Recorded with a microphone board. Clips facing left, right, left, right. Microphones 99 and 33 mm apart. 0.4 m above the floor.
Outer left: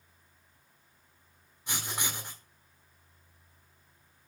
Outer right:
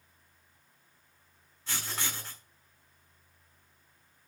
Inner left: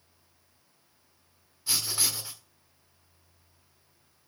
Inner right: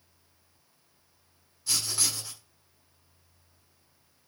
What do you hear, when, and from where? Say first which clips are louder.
1.7 s writing: outer left 1 dB, even; 20° left (ahead or behind), 1.3 m